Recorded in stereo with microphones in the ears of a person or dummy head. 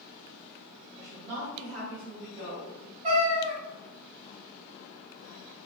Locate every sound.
1.0 s a woman speaking: 40° right (ahead or behind), 1.2 m; by 2.9 s 10° right (ahead or behind), 1.9 m
3.0 s a cat meowing: 40° right (ahead or behind), 1.6 m